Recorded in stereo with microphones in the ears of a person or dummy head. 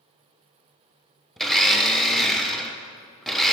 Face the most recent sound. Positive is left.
turn(degrees=5)  # may be behind; listen again after turning